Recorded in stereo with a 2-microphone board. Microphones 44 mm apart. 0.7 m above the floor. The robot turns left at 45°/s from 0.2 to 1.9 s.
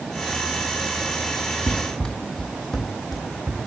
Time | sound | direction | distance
1.7 | running footsteps | 15° left (ahead or behind) | 1.1 m